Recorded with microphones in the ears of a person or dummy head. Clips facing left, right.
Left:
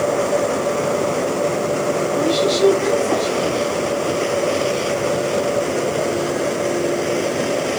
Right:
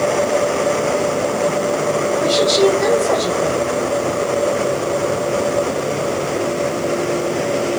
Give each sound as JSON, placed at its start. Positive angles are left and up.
{"t": 2.1, "sound": "a woman speaking", "side_deg": -75, "distance_m": 5.0}